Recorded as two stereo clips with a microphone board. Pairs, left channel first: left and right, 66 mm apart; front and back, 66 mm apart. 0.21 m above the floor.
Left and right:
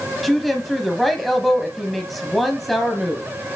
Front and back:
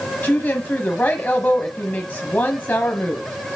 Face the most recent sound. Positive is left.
turn(degrees=5)